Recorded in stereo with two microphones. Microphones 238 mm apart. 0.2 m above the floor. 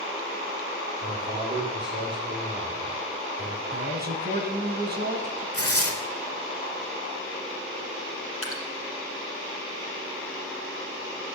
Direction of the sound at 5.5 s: 75° left (ahead or behind).